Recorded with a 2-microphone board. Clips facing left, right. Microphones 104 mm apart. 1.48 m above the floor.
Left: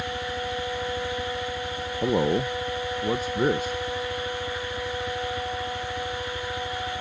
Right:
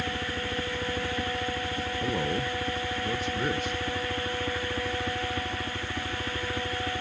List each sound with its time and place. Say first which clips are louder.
0.0 s a helicopter: left 2 dB; 55° right (ahead or behind); by 7.0 s 65° right (ahead or behind)
2.0 s a man speaking: left 8 dB; 40° left (ahead or behind)